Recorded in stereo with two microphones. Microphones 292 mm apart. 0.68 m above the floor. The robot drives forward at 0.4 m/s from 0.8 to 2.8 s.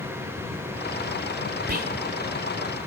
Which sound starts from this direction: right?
Whispering, at 1.7 s.